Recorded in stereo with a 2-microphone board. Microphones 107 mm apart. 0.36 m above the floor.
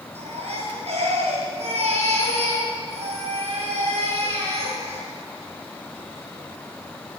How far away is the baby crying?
About 6.5 m.